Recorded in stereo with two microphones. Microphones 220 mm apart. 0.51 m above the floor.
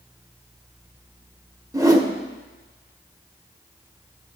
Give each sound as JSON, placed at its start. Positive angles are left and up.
{"t": 1.7, "sound": "a whoosh", "side_deg": -15, "distance_m": 0.7}